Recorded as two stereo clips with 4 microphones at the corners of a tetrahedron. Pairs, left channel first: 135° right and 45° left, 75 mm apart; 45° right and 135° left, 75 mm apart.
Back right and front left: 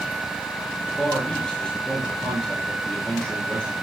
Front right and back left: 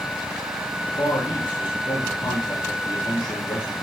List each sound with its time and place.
0.9 s a man speaking: 55° right, 6.5 m